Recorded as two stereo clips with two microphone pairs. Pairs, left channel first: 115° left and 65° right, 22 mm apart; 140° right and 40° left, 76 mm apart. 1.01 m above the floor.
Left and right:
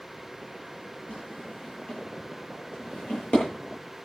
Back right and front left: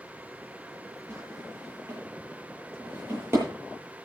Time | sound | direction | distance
1.1 | a drawer | 95° left | 9 m